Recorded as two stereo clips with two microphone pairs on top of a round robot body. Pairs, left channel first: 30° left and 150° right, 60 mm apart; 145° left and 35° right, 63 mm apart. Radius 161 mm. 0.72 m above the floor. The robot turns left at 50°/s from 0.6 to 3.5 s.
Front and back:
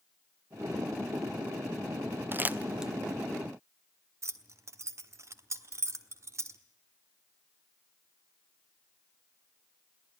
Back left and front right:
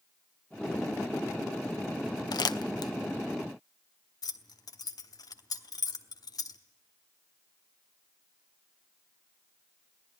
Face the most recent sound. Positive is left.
turn(degrees=170)